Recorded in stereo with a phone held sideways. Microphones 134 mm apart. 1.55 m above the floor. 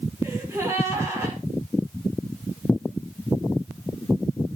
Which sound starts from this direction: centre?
A gasp, at 0.2 s.